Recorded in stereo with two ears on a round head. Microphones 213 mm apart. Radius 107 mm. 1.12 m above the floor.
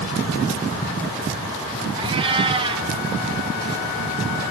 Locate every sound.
2.0 s a cat meowing: 20° right (ahead or behind), 0.8 m